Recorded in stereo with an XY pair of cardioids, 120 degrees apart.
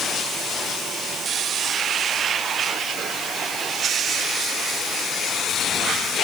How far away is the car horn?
No car horn in this recording.